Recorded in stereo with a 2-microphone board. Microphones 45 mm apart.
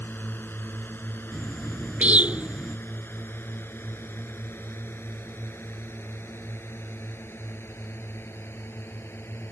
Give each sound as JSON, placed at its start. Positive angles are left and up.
{"t": 0.0, "sound": "a drone", "side_deg": 50}
{"t": 1.3, "sound": "a bird", "side_deg": -35}